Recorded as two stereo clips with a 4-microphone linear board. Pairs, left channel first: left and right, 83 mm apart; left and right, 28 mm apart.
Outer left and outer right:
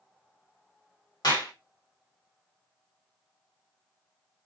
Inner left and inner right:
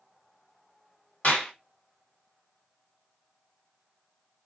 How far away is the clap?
About 1.7 m.